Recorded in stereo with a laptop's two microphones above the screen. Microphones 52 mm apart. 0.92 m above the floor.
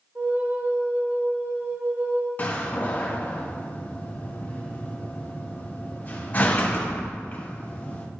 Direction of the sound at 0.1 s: 45° right (ahead or behind).